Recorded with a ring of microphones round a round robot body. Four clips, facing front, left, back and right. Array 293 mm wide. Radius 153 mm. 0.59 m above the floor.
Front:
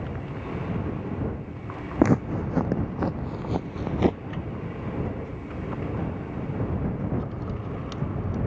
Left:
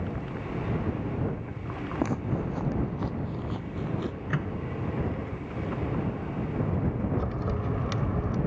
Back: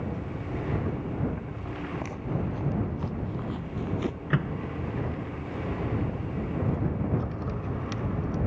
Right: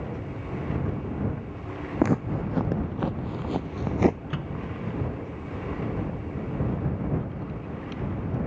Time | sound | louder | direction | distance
2.0 | footsteps | right 6 dB, front 15 dB | 25° right | ?
4.3 | a microwave | left 2 dB, back 5 dB | 165° left | ?
7.2 | a crack | left 3 dB, front 1 dB | 95° left | ?